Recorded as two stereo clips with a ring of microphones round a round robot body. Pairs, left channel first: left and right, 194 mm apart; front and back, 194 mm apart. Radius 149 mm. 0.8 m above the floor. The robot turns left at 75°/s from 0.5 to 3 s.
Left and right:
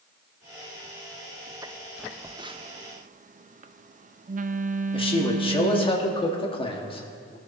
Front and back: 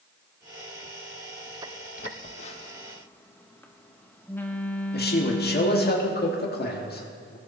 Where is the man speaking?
30° left, 2 m.